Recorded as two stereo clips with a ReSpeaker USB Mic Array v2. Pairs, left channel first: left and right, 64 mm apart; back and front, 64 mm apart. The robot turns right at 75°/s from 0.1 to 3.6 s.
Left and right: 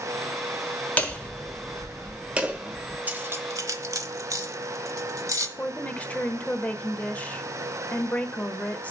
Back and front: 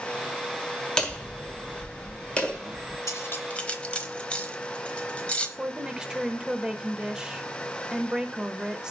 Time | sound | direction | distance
1.0 | hammering | 120° left | 1.2 m
3.1 | cutlery clinking | 150° right | 1.0 m
5.6 | a woman speaking | 60° left | 0.9 m